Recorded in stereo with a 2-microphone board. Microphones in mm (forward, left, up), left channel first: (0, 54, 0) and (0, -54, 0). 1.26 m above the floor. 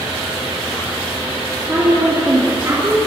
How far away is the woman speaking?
About 2.5 m.